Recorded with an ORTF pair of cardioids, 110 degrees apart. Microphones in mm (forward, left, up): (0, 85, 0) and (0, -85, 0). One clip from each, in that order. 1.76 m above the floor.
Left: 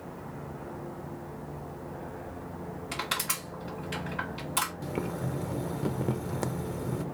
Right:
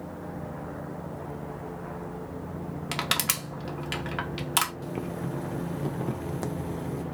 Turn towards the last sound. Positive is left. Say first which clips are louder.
# even
turn(degrees=15)